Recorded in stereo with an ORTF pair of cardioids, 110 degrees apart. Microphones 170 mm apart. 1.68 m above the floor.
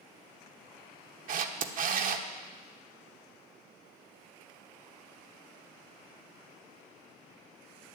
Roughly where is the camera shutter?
Ahead right.